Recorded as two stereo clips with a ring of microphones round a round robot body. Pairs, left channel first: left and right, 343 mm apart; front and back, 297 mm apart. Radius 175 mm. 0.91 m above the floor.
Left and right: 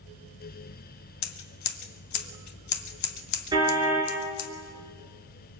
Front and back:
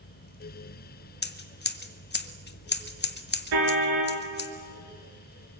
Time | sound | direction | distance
1.2 | scissors | 55° left | 1.8 m
3.5 | a car horn | 170° right | 8 m